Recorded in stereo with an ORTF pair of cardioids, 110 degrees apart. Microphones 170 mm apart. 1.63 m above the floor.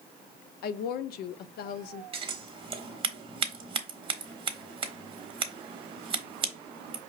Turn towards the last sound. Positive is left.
turn(degrees=-30)